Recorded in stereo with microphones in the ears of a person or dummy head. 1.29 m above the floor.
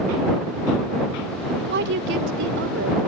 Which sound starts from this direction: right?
A woman speaking, at 1.7 s.